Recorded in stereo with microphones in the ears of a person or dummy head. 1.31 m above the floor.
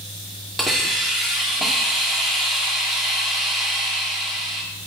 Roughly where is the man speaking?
I don't hear a man speaking.